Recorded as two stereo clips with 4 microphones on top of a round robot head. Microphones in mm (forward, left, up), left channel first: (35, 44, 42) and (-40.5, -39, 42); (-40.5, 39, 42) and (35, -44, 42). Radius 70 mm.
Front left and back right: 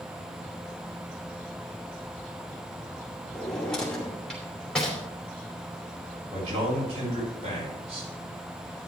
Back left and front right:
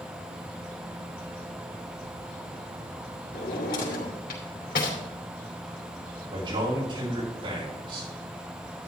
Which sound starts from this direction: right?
A man speaking, at 6.3 s.